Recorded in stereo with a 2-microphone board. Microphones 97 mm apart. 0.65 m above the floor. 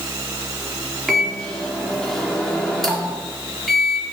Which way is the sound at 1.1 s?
Centre (ahead or behind).